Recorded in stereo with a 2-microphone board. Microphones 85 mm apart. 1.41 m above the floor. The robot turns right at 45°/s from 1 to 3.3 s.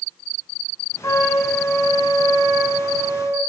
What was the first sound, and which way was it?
A trumpet, 140° left.